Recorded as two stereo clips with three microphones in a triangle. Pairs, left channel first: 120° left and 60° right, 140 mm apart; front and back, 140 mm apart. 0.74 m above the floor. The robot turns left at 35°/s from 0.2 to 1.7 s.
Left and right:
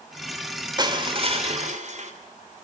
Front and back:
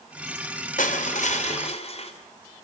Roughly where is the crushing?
Ahead.